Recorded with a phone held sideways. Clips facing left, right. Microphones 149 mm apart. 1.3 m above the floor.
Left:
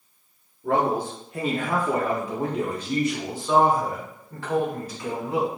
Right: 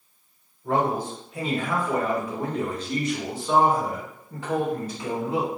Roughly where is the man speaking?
Left.